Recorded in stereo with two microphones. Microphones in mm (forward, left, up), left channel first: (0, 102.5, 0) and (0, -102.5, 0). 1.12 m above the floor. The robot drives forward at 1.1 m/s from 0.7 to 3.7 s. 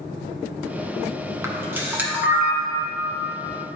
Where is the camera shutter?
15° right (ahead or behind), 1.4 m; by 2.9 s 5° right (ahead or behind), 3 m.